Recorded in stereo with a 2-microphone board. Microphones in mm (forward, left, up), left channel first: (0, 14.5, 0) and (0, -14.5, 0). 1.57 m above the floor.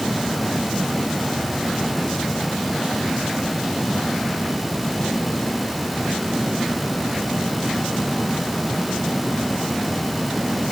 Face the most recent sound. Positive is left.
No sound to turn to.